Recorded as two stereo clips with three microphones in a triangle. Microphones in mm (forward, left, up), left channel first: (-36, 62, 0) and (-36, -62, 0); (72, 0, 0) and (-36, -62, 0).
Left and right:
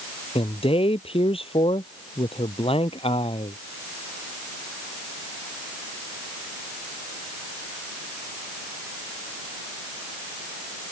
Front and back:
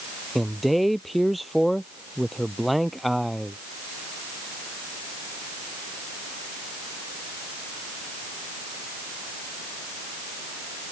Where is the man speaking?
120° left.